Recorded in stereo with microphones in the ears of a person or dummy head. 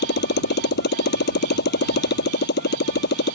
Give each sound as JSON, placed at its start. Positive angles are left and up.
{"t": 0.0, "sound": "a motorcycle", "side_deg": 55}